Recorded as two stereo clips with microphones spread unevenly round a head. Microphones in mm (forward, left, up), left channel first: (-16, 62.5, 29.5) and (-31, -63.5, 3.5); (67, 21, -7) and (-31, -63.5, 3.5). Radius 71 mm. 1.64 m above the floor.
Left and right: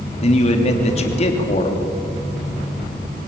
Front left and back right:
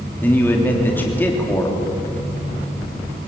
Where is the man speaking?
120° left, 3 m.